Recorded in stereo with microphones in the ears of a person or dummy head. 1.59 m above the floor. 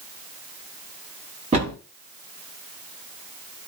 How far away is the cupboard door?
About 1.1 m.